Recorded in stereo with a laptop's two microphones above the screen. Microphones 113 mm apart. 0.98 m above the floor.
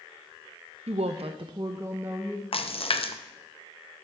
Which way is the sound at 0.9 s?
75° right (ahead or behind).